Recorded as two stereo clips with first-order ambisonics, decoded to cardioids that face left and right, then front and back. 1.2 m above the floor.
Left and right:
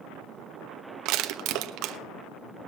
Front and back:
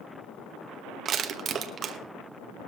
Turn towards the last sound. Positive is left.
turn(degrees=-120)